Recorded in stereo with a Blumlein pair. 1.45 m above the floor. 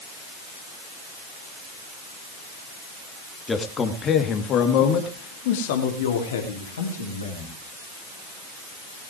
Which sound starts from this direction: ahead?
A man speaking, at 3.5 s.